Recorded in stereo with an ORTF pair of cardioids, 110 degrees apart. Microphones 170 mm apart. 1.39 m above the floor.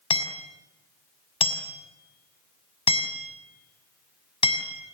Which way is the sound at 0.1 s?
35° left.